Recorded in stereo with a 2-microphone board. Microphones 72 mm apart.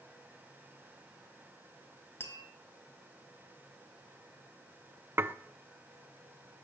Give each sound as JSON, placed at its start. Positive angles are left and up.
{"t": 2.2, "sound": "tapping", "side_deg": 35, "distance_m": 2.5}
{"t": 5.2, "sound": "dishes clattering", "side_deg": -30, "distance_m": 0.6}